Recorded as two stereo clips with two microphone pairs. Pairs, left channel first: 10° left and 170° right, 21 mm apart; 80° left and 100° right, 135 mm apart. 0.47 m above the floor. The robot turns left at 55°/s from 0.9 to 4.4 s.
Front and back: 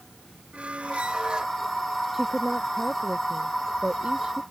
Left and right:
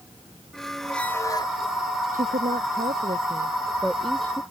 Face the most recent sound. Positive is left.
turn(degrees=145)